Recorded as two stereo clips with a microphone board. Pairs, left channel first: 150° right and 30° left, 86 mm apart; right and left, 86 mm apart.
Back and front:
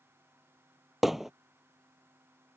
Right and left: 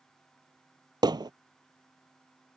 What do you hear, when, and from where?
1.0 s hammering: 120° left